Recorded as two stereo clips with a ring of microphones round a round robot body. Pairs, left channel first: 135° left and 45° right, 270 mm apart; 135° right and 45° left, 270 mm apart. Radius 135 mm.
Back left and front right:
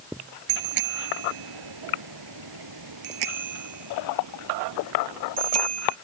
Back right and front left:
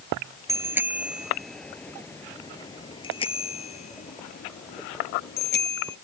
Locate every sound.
0.5 s a bicycle bell: 35° right; by 6.0 s 85° right